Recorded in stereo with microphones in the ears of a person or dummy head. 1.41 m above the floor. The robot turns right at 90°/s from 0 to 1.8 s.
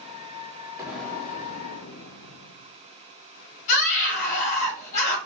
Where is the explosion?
10° right, 0.8 m; by 2.7 s 80° left, 0.8 m.